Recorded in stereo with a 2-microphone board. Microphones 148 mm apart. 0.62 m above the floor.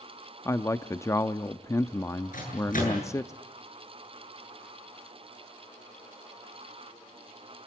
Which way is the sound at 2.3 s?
65° left (ahead or behind).